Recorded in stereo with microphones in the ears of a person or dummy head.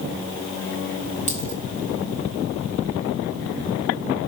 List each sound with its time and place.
1.3 s a dropped coin: 40° left (ahead or behind), 1.3 m